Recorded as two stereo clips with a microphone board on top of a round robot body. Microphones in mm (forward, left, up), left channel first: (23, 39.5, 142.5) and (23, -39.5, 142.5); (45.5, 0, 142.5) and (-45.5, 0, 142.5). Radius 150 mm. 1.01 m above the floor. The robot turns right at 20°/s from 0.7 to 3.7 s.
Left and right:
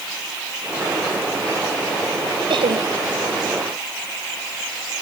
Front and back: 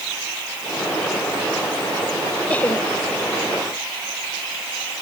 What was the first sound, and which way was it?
Laughter, 75° right.